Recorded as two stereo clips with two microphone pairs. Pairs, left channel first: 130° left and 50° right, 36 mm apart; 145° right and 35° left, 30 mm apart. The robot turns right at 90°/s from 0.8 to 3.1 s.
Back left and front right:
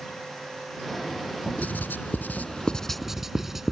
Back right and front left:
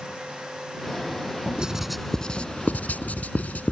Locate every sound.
1.6 s writing: 95° left; by 3.7 s 130° right